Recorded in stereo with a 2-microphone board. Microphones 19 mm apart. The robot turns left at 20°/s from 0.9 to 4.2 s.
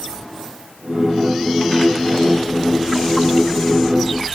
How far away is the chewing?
No chewing in this recording.